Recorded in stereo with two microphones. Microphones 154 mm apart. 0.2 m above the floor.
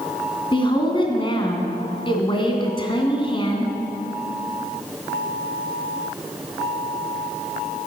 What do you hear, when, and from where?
0.5 s a woman speaking: 30° left (ahead or behind), 1.8 m